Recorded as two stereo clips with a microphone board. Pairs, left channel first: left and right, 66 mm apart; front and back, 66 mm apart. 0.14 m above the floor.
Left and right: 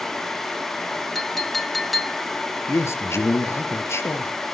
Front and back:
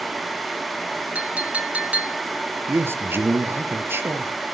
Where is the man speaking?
130° left, 3 m.